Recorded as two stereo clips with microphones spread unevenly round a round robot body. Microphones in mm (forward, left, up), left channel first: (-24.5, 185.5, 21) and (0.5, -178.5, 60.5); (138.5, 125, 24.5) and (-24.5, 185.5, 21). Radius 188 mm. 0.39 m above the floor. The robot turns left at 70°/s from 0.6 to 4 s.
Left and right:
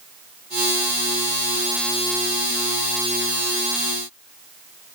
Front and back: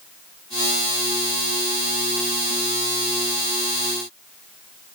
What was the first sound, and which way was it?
Only background noise.